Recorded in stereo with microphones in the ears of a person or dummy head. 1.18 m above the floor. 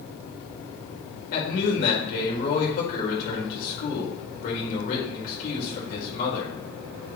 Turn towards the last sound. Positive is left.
turn(degrees=60)  # may be behind; listen again after turning